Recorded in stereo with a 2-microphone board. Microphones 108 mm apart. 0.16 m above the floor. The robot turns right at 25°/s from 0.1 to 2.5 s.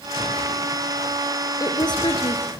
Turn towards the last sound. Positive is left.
turn(degrees=55)  # may be behind; listen again after turning